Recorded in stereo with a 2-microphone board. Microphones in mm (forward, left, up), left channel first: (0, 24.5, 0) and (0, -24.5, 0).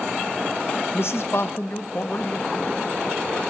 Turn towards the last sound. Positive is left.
turn(degrees=30)  # may be behind; listen again after turning